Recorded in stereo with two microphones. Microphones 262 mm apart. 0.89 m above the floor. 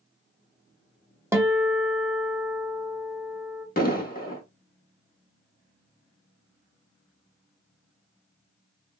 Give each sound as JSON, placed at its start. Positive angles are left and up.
{"t": 1.3, "sound": "a guitar", "side_deg": -10, "distance_m": 0.6}
{"t": 3.8, "sound": "an explosion", "side_deg": 35, "distance_m": 0.7}